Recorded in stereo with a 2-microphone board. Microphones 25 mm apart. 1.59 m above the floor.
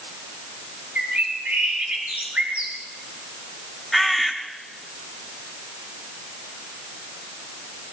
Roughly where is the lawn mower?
No lawn mower in this recording.